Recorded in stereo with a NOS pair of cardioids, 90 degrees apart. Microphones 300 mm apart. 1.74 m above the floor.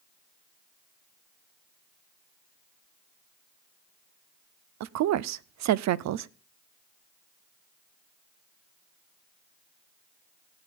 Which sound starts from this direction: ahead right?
A woman speaking, at 4.8 s.